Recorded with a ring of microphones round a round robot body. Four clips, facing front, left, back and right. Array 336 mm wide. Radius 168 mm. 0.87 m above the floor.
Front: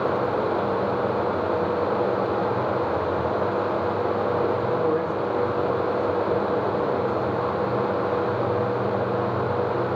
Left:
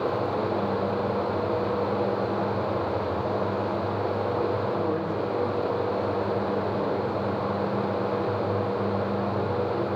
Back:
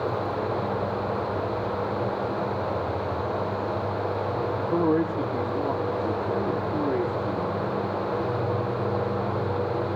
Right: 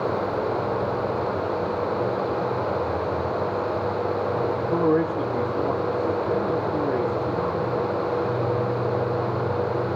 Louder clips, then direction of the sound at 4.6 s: Right 6 dB, even; 130° right.